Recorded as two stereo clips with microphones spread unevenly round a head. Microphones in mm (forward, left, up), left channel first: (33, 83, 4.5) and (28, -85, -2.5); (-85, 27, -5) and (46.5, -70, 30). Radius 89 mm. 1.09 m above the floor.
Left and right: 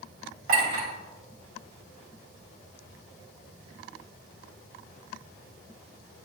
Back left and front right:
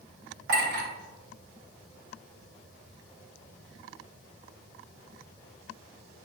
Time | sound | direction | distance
0.5 | a clink | 55° right | 3 m